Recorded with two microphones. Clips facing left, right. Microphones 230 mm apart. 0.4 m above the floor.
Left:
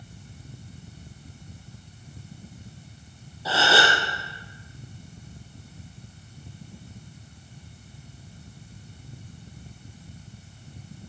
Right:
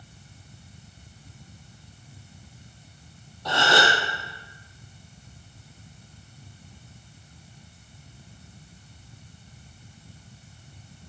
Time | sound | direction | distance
3.5 | a gasp | 5° left (ahead or behind) | 2.5 m